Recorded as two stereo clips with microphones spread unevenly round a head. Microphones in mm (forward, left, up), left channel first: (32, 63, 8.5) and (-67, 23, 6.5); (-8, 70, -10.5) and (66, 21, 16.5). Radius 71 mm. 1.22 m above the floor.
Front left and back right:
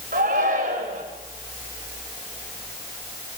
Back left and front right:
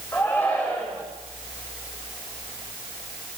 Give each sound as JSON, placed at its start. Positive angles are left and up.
{"t": 0.1, "sound": "a shout", "azimuth_deg": -135, "distance_m": 7.5}